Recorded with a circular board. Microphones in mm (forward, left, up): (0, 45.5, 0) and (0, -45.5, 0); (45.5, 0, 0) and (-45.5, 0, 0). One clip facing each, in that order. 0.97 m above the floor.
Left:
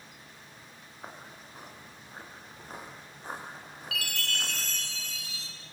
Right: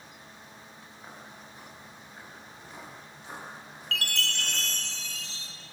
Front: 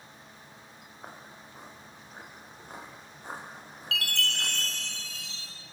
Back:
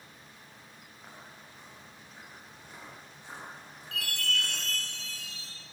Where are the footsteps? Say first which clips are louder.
Left 2 dB, front 4 dB; 40° left, 6.5 m; by 4.6 s 45° left, 10 m.